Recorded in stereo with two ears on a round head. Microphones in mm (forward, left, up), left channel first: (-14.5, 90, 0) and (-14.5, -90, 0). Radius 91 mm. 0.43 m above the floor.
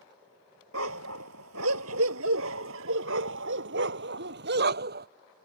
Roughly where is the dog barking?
Right.